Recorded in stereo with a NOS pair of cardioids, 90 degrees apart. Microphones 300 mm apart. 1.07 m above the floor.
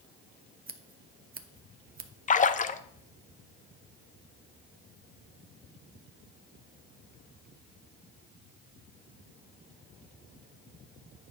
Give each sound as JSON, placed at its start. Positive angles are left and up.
{"t": 0.7, "sound": "scissors", "azimuth_deg": -30, "distance_m": 1.0}
{"t": 2.3, "sound": "a splash", "azimuth_deg": 25, "distance_m": 0.6}